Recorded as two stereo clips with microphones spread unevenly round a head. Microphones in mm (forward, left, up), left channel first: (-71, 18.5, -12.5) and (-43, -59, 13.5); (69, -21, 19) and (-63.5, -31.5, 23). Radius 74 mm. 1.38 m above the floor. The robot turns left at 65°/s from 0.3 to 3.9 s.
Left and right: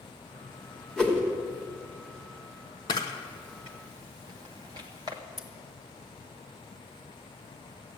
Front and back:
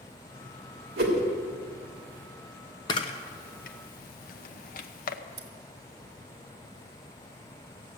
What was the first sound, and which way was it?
A whoosh, 165° right.